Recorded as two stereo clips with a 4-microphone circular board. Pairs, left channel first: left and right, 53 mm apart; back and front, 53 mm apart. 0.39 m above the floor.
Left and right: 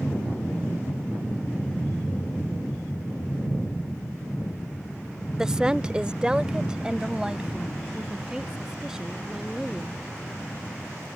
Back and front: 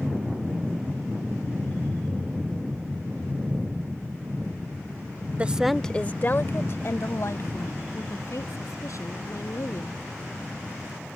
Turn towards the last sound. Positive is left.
turn(degrees=-170)